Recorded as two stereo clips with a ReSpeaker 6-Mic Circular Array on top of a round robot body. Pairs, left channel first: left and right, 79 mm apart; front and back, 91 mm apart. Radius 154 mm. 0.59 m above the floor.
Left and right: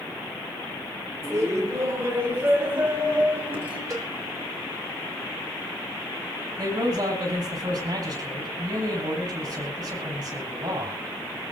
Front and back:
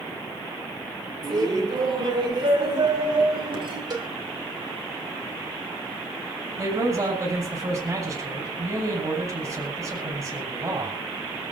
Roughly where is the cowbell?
Behind right.